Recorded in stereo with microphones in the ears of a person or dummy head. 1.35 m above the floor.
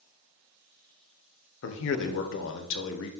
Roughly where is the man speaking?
Left.